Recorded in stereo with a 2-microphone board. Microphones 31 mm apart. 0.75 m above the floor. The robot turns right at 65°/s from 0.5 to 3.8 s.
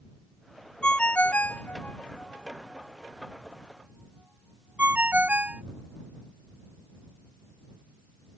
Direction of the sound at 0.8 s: 35° left (ahead or behind).